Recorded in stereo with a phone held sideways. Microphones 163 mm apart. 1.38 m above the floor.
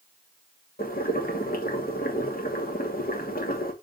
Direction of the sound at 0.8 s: 70° left (ahead or behind).